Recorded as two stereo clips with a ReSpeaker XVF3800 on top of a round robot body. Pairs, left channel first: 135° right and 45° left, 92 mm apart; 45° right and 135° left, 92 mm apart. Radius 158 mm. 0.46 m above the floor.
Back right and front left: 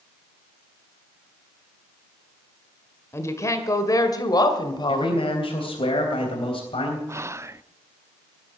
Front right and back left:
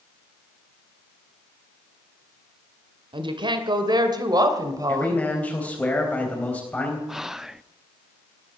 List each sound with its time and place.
3.1 s a woman speaking: 165° left, 2 m; by 5.9 s 165° right, 3 m
4.9 s a man speaking: 120° right, 3.5 m
7.1 s whispering: 55° left, 0.8 m